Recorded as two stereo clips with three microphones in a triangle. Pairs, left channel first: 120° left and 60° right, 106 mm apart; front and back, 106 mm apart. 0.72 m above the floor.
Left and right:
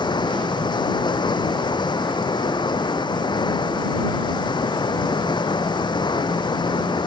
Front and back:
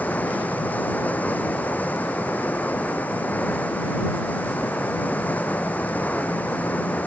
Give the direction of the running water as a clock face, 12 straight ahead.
9 o'clock.